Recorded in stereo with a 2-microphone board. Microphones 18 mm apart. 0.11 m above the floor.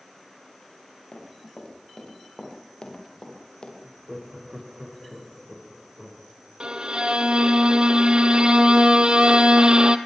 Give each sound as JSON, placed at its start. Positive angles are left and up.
{"t": 1.1, "sound": "running footsteps", "side_deg": 50, "distance_m": 8.0}
{"t": 3.8, "sound": "laughter", "side_deg": -35, "distance_m": 7.5}
{"t": 6.6, "sound": "a violin", "side_deg": -60, "distance_m": 1.2}